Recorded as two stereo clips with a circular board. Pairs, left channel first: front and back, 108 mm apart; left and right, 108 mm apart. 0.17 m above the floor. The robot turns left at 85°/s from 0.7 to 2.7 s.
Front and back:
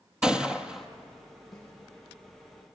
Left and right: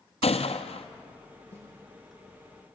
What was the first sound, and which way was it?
A gunshot, 100° left.